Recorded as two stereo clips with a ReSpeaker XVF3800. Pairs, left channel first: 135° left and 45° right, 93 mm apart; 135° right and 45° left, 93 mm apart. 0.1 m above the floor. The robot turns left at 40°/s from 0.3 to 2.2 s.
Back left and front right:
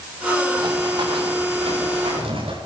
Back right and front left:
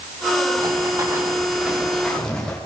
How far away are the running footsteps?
About 9.5 m.